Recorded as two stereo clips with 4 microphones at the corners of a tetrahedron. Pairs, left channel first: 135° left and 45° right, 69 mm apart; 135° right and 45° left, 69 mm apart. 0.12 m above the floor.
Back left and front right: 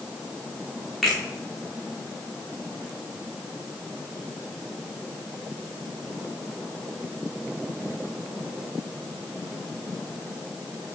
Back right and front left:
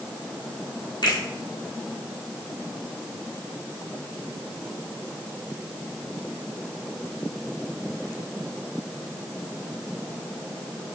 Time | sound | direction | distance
1.0 | a finger snap | 140° right | 5 m